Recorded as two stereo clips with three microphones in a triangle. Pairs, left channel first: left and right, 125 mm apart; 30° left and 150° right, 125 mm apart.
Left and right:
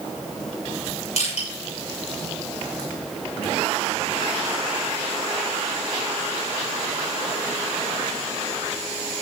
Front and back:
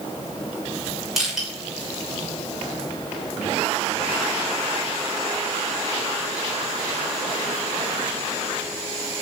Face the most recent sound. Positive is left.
turn(degrees=120)